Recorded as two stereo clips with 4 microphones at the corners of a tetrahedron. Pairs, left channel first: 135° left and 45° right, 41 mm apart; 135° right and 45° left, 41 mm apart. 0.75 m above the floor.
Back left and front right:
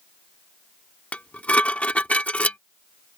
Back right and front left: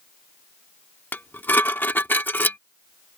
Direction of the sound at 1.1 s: 170° right.